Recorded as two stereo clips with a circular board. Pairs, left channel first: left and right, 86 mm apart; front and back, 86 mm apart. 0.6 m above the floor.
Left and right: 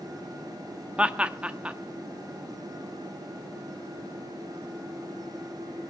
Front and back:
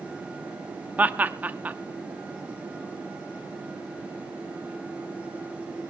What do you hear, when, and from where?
1.0 s laughter: 145° right, 0.6 m